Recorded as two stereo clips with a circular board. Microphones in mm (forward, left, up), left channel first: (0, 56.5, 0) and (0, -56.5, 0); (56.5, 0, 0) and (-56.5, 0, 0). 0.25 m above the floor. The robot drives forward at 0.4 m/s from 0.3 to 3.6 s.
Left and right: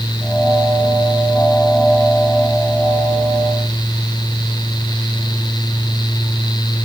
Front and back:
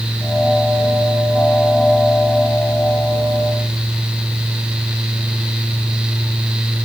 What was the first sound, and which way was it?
Only background noise.